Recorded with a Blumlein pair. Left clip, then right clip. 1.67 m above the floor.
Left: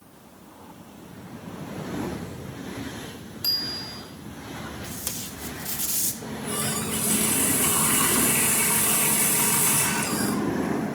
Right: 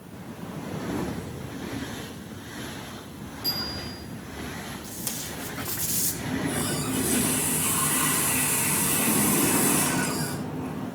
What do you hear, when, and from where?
3.4 s a bicycle bell: 60° left, 5.5 m
4.8 s tape being pulled: 10° left, 2.5 m
6.2 s a running tap: 65° left, 5.5 m